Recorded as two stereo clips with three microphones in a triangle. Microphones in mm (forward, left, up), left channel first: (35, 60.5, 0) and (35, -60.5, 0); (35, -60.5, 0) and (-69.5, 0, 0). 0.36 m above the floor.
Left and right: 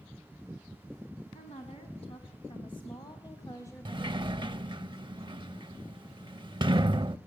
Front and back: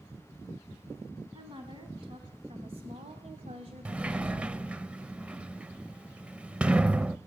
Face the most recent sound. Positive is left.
turn(degrees=-130)